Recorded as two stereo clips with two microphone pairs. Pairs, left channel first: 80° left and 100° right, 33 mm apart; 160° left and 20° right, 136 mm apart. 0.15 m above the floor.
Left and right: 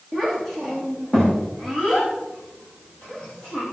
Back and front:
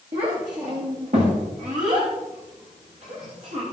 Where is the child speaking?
Straight ahead, 7 m; by 3.6 s 15° left, 8.5 m.